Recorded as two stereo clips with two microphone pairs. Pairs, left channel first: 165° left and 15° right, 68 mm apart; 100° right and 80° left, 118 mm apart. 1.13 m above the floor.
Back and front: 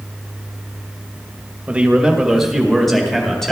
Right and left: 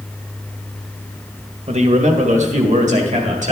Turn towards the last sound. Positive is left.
turn(degrees=80)